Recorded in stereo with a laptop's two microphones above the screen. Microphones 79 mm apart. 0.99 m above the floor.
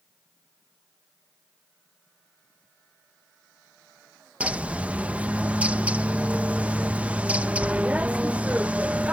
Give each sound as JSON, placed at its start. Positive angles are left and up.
{"t": 4.4, "sound": "a bird", "side_deg": -15}